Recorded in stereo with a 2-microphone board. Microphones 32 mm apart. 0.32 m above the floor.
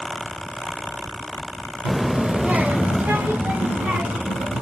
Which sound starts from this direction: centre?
A child speaking, at 1.9 s.